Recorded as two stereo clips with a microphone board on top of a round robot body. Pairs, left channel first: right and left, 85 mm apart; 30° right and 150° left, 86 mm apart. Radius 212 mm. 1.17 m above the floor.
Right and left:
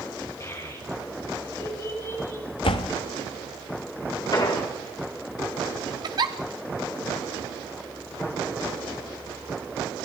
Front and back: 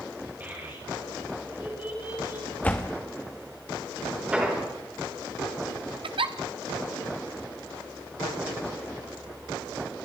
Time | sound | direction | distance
0.4 | a child speaking | 145° right | 6.5 m
2.6 | a door slam | 105° right | 0.7 m
4.3 | an explosion | 135° right | 3 m
6.0 | a giggle | 130° left | 1.0 m